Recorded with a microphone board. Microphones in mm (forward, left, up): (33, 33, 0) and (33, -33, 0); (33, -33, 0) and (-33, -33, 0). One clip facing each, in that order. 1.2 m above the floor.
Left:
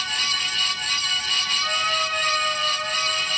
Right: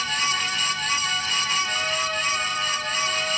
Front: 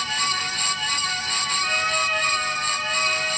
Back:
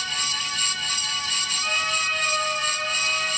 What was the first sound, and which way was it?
A trumpet, 90° left.